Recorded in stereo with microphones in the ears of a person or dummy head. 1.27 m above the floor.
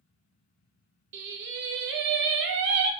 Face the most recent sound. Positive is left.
turn(degrees=-55)  # may be behind; listen again after turning